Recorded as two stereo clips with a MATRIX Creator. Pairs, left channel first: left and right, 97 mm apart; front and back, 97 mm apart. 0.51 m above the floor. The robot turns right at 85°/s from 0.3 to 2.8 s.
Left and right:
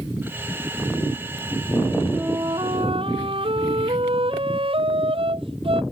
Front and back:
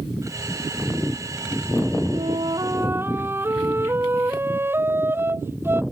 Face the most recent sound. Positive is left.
turn(degrees=-115)